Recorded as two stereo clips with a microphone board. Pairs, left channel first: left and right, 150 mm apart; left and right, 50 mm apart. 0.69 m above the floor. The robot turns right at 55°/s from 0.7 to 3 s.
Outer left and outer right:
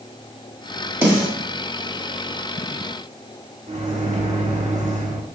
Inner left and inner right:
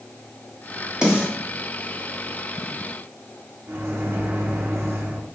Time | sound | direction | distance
1.0 | a snare drum | 15° right (ahead or behind) | 1.5 m
3.7 | a microwave | 50° right (ahead or behind) | 1.0 m